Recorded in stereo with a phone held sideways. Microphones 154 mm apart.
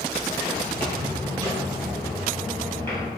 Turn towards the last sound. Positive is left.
turn(degrees=20)  # may be behind; listen again after turning